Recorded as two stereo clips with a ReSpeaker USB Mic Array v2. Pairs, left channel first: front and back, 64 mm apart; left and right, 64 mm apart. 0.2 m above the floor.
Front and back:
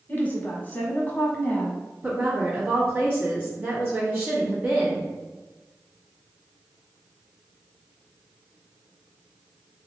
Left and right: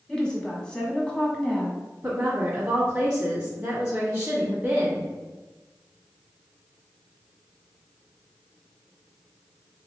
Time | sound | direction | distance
0.1 | a woman speaking | 25° left | 1.3 m
2.0 | a woman speaking | 155° right | 1.4 m